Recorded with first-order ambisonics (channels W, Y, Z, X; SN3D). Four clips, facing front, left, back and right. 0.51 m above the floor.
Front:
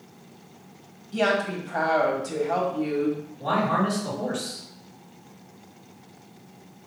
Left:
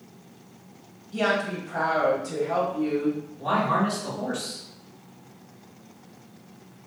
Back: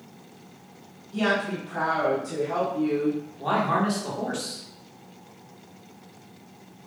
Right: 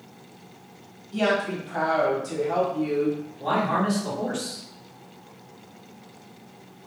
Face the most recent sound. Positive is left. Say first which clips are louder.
# even, even
turn(degrees=175)